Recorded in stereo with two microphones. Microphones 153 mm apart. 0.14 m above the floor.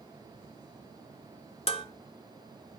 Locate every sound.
1.7 s dishes clattering: 40° left (ahead or behind), 1.2 m